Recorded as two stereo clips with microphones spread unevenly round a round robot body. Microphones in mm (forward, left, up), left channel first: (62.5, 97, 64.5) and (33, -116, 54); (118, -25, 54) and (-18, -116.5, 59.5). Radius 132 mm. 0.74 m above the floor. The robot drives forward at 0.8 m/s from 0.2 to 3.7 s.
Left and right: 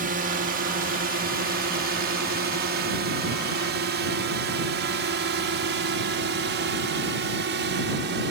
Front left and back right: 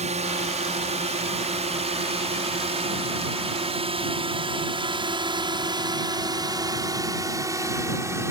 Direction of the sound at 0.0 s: 120° right.